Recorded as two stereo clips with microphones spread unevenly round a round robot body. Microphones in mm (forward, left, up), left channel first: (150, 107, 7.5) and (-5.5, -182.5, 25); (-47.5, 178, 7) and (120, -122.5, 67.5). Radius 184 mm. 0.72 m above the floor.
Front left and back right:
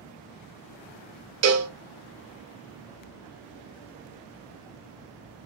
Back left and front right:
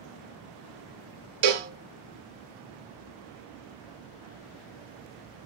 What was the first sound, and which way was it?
A cowbell, 80° right.